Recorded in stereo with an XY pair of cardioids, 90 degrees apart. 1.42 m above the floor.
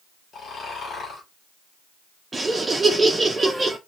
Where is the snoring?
60° left, 2.0 m.